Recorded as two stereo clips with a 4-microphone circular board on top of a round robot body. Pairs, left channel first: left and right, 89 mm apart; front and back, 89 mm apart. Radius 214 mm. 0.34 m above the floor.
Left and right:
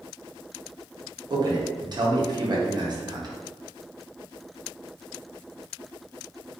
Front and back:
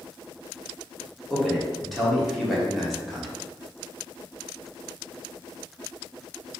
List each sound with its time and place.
1.3 s a man speaking: 90° right, 1.8 m